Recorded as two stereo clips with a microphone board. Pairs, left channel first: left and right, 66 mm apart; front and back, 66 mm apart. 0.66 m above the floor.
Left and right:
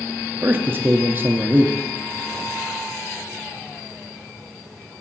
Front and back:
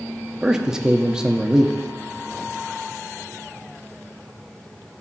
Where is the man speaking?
110° right, 0.8 m.